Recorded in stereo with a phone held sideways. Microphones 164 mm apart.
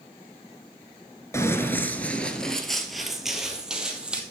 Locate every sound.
1.3 s running footsteps: 20° left (ahead or behind), 0.9 m; by 4.2 s 5° right (ahead or behind), 2.0 m